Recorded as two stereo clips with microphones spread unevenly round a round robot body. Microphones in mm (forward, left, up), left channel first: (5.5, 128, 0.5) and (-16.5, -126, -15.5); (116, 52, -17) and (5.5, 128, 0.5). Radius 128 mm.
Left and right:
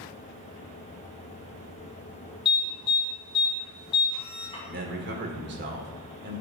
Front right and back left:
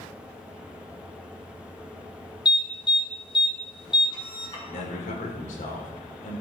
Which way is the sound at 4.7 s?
50° right.